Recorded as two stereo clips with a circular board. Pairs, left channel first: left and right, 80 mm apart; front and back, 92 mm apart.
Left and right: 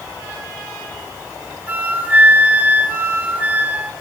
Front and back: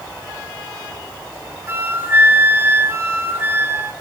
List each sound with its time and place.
1.7 s a flute: 140° right, 0.6 m